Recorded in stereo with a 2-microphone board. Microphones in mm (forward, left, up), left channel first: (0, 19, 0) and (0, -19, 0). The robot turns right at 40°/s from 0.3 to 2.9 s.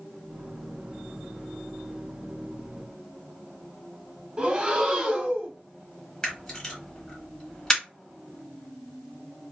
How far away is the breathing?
About 0.7 m.